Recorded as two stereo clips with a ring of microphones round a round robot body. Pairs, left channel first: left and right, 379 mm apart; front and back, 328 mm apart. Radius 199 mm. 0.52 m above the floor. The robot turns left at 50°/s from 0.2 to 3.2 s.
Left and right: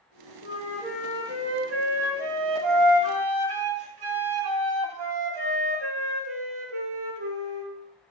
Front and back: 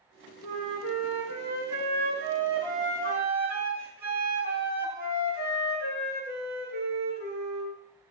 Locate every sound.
0.4 s a flute: 25° left, 3 m; by 7.7 s 115° right, 3 m